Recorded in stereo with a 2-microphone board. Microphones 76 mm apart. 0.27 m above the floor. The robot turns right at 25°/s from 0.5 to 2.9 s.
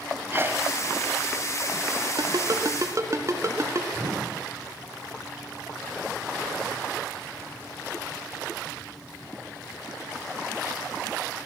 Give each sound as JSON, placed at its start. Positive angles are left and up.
{"t": 0.3, "sound": "a sneeze", "side_deg": -30, "distance_m": 1.7}
{"t": 2.2, "sound": "a ringtone", "side_deg": -60, "distance_m": 2.5}
{"t": 4.0, "sound": "a whoosh", "side_deg": -60, "distance_m": 9.0}